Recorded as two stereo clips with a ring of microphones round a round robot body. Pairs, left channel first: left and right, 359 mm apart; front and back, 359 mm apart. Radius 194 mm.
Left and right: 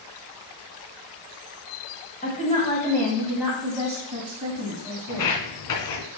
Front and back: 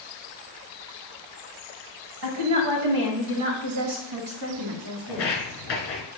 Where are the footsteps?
60° left, 3 m.